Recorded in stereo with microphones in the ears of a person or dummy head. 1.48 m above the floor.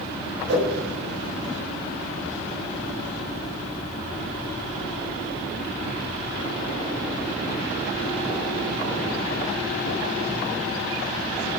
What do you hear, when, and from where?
0.5 s a whoosh: 70° right (ahead or behind), 2.5 m